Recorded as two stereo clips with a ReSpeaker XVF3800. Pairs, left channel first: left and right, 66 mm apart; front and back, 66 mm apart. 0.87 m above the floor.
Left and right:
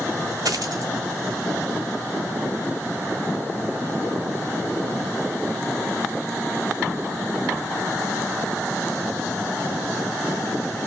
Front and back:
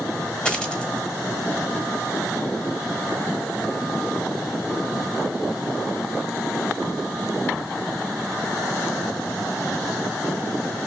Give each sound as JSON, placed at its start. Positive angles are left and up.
{"t": 0.5, "sound": "a dropped coin", "azimuth_deg": -75, "distance_m": 1.3}